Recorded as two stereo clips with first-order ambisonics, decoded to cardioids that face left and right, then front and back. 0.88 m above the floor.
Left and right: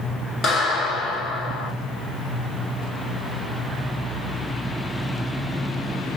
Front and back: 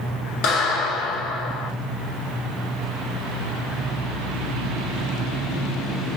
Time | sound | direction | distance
0.4 | a clap | 20° left | 1.6 m